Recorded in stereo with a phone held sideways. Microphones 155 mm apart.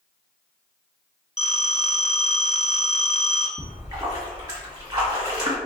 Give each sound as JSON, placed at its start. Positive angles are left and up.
{"t": 1.4, "sound": "a phone ringing", "side_deg": 45, "distance_m": 1.2}
{"t": 3.6, "sound": "a splash", "side_deg": -25, "distance_m": 1.7}